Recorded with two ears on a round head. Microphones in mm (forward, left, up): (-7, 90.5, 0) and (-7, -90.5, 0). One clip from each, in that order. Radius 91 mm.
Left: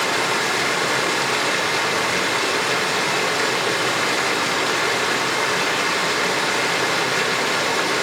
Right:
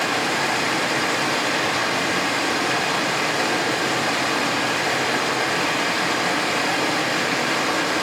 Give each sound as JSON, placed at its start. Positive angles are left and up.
{"t": 0.0, "sound": "running water", "side_deg": 35, "distance_m": 5.0}